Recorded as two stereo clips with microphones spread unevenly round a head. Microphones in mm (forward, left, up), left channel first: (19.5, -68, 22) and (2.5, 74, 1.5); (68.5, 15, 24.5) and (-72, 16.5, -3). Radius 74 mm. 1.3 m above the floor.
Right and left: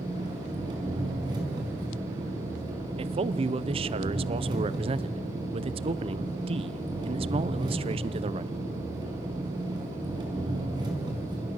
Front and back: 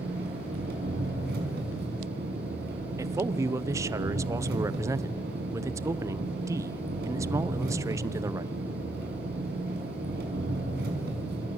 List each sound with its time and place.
0.0 s an engine running: 160° left, 5 m
3.0 s a man speaking: 125° left, 0.8 m